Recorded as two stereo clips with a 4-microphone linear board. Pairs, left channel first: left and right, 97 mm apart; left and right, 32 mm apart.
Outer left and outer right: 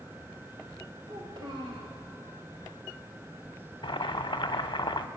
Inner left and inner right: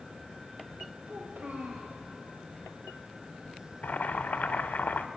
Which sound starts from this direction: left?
Boiling, at 3.8 s.